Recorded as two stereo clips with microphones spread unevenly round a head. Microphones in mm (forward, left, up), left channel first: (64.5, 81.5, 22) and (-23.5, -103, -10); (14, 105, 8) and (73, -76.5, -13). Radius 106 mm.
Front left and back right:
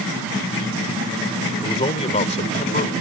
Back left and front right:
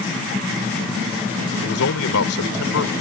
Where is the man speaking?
130° left; by 2.9 s 120° left.